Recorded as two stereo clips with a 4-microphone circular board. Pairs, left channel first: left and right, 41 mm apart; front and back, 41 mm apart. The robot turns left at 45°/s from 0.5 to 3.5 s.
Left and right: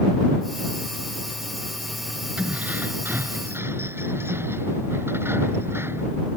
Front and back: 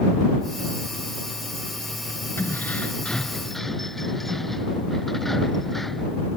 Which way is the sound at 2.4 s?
30° right.